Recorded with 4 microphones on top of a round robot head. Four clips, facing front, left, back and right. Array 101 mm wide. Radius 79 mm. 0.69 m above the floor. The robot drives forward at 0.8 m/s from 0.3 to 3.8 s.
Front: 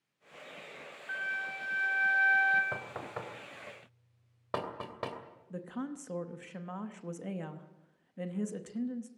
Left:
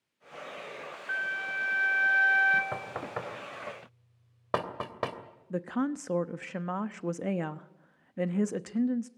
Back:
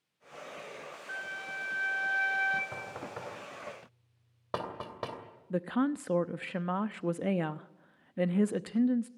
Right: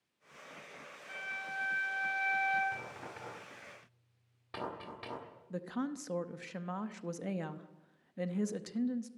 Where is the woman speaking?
145° left, 0.8 m.